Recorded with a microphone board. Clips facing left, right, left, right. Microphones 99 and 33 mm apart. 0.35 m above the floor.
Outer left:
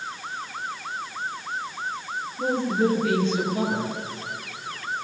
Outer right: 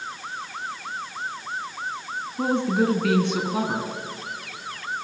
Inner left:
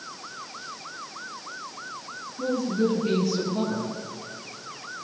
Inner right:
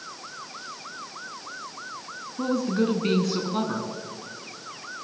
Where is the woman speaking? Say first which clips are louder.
Outer right 1 dB, even; 70° right (ahead or behind), 4.5 m.